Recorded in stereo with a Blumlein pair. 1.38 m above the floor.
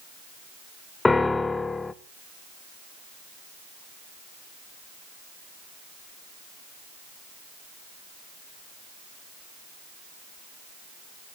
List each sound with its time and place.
1.1 s a piano: 10° left, 0.5 m